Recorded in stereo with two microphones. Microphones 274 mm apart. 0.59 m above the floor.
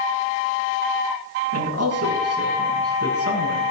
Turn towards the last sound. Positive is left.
turn(degrees=-55)  # may be behind; listen again after turning